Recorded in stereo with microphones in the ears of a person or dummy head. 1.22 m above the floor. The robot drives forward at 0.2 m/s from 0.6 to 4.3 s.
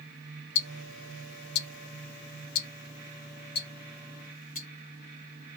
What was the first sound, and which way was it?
Ticking, 60° left (ahead or behind).